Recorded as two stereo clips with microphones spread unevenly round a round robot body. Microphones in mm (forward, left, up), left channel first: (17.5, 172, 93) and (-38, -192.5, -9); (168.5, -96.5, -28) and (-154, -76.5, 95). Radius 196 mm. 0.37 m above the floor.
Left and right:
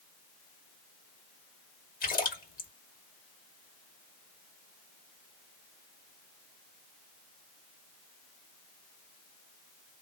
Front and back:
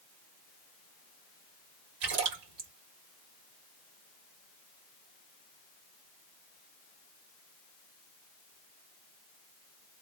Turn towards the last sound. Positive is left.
turn(degrees=155)